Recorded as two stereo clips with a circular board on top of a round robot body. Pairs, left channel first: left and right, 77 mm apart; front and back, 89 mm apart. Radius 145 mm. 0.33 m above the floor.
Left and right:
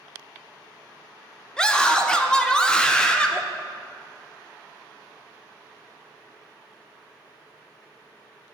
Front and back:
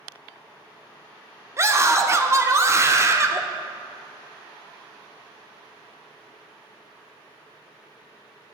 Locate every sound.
1.6 s a scream: 160° left, 1.0 m